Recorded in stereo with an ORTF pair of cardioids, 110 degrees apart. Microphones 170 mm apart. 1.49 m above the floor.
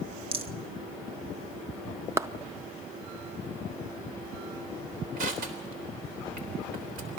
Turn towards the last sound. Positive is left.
turn(degrees=-65)